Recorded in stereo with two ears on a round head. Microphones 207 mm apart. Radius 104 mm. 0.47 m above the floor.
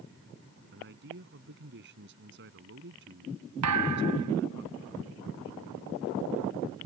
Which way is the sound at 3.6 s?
85° right.